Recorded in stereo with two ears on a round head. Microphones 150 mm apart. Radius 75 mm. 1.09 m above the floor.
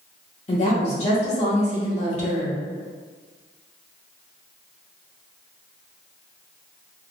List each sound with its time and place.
0.5 s a woman speaking: 40° left (ahead or behind), 1.0 m